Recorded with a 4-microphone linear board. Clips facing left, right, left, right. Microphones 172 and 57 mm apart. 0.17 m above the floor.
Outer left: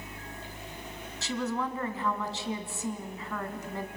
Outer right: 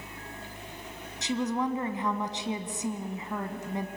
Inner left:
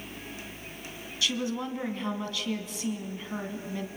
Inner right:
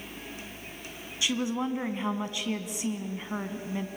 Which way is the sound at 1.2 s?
20° right (ahead or behind).